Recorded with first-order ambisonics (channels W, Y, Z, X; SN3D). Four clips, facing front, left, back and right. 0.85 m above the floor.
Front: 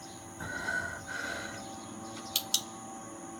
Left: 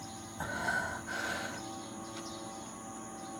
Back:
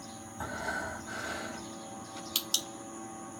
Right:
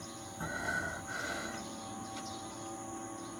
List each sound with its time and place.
0.4 s breathing: 120° left, 1.8 m